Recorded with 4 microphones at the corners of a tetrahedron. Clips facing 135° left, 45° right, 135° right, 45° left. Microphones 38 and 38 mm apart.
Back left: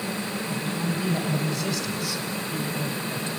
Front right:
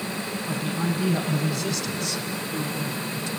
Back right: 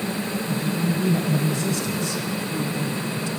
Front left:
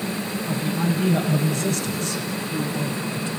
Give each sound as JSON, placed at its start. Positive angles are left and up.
{"t": 0.5, "sound": "a man speaking", "azimuth_deg": 35, "distance_m": 4.0}